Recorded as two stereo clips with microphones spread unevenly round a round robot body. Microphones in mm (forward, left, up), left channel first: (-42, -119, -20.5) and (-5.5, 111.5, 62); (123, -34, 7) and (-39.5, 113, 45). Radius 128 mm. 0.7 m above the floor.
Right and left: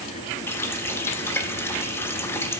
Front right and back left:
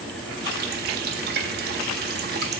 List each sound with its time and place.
0.5 s a running tap: 170° right, 0.6 m